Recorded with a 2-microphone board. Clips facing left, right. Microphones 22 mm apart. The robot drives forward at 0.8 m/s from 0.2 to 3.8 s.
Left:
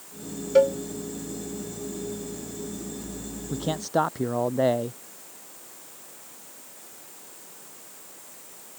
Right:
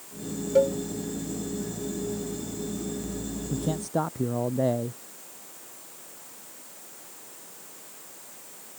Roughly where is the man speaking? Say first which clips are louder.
Left 3 dB; left.